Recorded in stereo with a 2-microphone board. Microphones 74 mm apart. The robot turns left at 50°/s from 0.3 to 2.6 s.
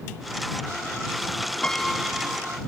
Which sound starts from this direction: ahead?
A piano, at 1.6 s.